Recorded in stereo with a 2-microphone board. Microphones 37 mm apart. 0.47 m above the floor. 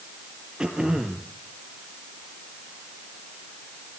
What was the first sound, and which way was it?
Throat clearing, 20° right (ahead or behind).